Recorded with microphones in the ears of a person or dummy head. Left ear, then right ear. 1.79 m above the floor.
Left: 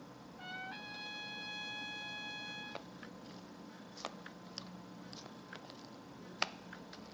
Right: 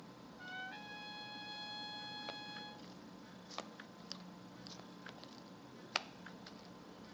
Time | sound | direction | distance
0.4 | a trumpet | 10° left (ahead or behind) | 0.7 m